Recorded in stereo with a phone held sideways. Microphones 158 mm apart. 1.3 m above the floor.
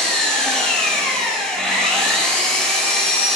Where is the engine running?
5° left (ahead or behind), 6 m.